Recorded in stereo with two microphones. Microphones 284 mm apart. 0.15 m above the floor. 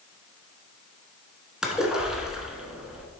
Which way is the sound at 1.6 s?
5° right (ahead or behind).